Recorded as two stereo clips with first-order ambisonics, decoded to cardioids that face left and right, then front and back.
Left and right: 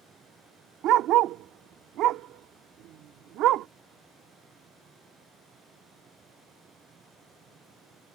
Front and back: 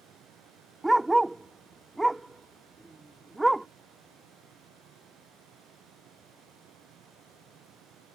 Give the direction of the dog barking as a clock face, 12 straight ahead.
3 o'clock.